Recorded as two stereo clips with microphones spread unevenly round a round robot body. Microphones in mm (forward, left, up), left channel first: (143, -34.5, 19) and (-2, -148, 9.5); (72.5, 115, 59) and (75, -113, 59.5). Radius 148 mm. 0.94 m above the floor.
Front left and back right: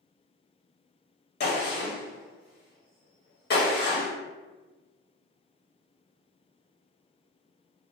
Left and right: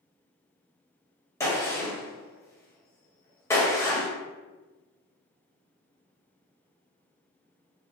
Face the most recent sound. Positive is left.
turn(degrees=15)